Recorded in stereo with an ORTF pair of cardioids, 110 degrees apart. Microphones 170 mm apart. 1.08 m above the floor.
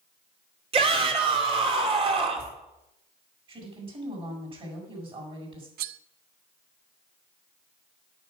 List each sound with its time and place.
0.7 s a shout: 35° right, 3.5 m
3.5 s a woman speaking: 30° right, 6.5 m
5.8 s cutlery clinking: 65° right, 0.6 m